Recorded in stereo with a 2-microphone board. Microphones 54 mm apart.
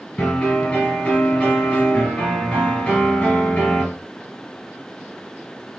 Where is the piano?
20° left (ahead or behind), 2 m.